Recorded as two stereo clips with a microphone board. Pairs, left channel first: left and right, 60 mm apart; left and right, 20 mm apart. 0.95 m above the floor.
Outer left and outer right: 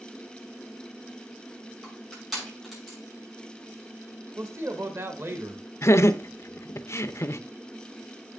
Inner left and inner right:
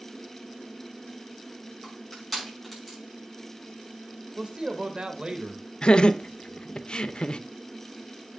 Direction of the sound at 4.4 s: 55° right (ahead or behind).